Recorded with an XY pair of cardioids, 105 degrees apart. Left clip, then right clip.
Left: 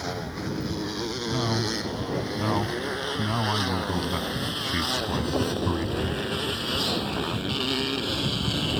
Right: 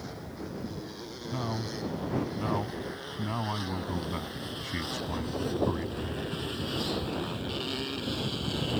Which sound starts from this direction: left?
A motorcycle, at 0.0 s.